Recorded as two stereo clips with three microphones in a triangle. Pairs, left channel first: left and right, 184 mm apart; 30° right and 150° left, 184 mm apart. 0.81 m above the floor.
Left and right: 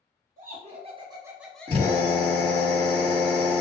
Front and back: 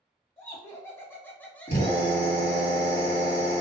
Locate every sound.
0.4 s laughter: 105° right, 0.8 m; by 2.7 s 60° left, 0.9 m
1.7 s a drill: 40° right, 1.6 m